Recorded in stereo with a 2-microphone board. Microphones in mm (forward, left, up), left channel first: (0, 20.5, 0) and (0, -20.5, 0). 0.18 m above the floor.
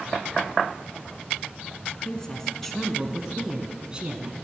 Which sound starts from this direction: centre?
A woman speaking, at 1.9 s.